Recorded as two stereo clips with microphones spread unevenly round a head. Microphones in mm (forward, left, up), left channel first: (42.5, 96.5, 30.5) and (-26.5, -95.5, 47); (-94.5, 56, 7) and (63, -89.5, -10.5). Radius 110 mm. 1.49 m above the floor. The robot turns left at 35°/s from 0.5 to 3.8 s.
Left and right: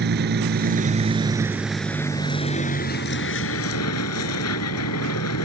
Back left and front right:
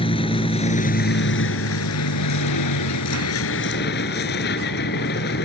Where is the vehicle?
155° right; by 5.5 s 90° left.